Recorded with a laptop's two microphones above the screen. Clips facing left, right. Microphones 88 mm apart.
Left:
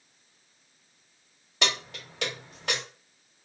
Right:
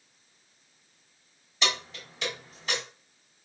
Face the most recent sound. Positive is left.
turn(degrees=65)  # may be behind; listen again after turning